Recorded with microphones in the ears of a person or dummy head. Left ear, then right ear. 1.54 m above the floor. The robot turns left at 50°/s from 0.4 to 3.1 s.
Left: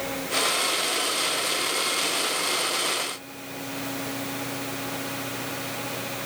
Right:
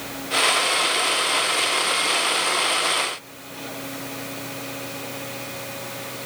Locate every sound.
Only background noise.